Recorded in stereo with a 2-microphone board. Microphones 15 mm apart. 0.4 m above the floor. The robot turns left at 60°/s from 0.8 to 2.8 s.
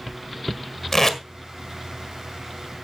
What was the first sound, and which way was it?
Tape being pulled, 25° left (ahead or behind).